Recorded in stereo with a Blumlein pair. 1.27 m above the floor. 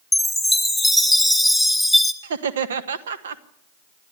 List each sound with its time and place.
0.1 s a chime: straight ahead, 2 m
2.2 s laughter: 65° right, 1.5 m